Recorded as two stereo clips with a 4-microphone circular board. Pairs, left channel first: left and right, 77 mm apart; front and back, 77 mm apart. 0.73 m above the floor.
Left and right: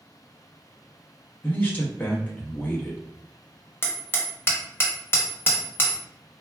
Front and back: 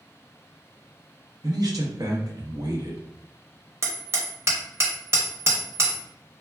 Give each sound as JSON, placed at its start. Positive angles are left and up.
{"t": 1.4, "sound": "a man speaking", "azimuth_deg": 155, "distance_m": 0.9}
{"t": 3.8, "sound": "hammering", "azimuth_deg": 140, "distance_m": 0.6}